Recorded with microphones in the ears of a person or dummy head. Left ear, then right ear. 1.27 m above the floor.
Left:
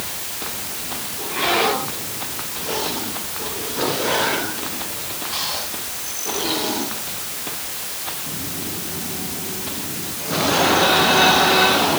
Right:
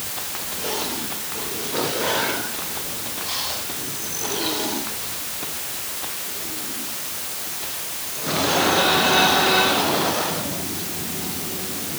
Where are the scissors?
I don't hear scissors.